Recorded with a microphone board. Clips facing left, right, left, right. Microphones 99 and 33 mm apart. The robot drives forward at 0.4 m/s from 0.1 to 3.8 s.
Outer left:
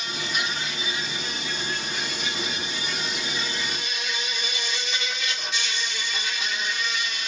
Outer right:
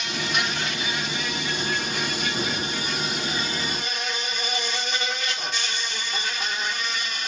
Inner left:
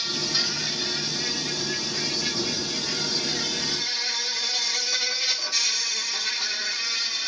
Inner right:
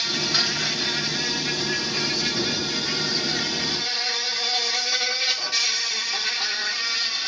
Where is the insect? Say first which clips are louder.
Outer right 3 dB, inner right 3 dB; 65° right (ahead or behind), 1.9 m; by 7.3 s 45° right (ahead or behind), 2.5 m.